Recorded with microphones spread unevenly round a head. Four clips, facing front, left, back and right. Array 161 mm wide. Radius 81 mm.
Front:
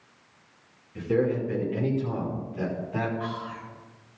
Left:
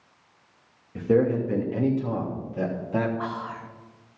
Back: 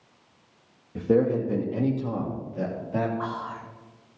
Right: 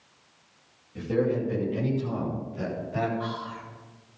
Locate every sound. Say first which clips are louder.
0.9 s a man speaking: left 4 dB, back 3 dB; 145° left, 2.5 m; by 3.1 s 110° left, 3 m
3.2 s whispering: left 2 dB, back 2 dB; 145° left, 0.9 m